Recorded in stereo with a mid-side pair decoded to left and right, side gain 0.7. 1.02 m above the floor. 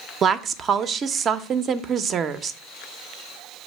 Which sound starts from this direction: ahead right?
A woman speaking, at 0.2 s.